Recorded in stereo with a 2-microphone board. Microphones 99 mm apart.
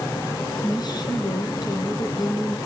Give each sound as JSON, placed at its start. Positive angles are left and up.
{"t": 0.6, "sound": "a woman speaking", "side_deg": 45, "distance_m": 3.5}